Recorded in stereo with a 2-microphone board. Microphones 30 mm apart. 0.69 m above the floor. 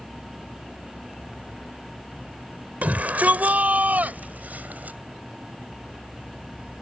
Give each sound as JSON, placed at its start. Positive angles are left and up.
{"t": 2.8, "sound": "a shout", "side_deg": -65}